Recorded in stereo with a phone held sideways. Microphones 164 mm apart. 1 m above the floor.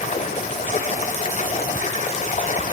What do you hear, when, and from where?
0.0 s running water: 50° left (ahead or behind), 1.3 m